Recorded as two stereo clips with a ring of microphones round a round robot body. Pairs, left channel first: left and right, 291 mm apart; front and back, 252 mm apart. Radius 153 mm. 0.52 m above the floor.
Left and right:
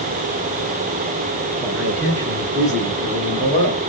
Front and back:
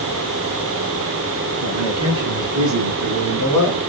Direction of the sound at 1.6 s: Straight behind.